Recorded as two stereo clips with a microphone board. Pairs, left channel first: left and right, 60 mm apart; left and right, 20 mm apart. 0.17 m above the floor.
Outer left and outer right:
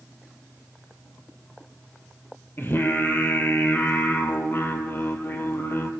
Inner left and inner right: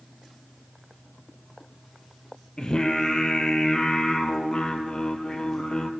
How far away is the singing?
About 1.7 m.